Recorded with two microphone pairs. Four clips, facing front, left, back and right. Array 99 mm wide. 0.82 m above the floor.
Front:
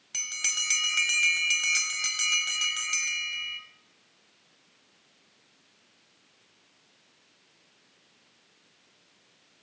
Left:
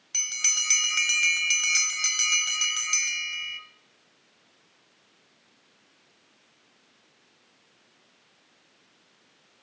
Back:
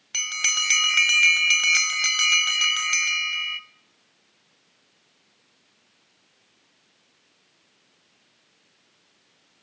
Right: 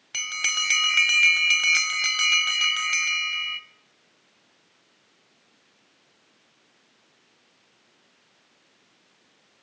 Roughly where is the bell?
Behind right.